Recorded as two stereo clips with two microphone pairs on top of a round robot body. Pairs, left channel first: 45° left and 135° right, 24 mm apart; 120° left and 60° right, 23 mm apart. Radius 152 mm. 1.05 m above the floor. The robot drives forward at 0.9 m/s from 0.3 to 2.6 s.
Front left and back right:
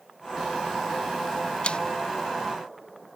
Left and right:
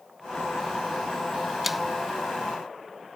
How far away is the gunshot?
I don't hear a gunshot.